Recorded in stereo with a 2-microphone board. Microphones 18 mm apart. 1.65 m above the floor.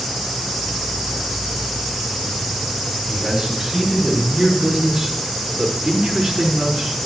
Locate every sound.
3.1 s a man speaking: 30° right (ahead or behind), 5.5 m; by 7.0 s 60° right (ahead or behind), 5 m